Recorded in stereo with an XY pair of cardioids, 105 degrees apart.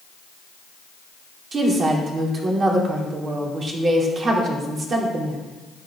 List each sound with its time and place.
1.5 s a woman speaking: 45° right, 3 m